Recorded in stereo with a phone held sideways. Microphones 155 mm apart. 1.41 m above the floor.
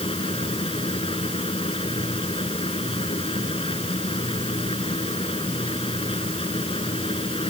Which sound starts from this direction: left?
A machine running, at 0.0 s.